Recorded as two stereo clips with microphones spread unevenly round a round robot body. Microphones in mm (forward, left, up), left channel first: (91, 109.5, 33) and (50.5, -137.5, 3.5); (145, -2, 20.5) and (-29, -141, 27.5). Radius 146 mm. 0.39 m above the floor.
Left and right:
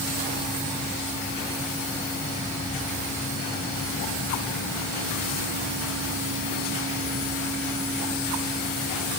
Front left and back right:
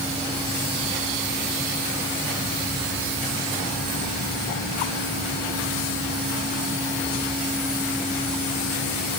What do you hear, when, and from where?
Only background noise.